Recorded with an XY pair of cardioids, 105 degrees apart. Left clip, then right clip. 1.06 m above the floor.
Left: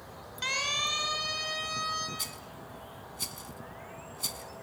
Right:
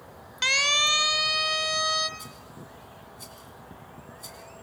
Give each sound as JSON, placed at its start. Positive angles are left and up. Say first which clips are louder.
{"t": 0.4, "sound": "a siren", "louder": "right 8 dB", "azimuth_deg": -65, "distance_m": 2.5}
{"t": 2.2, "sound": "a rattle", "louder": "left 4 dB", "azimuth_deg": 65, "distance_m": 2.5}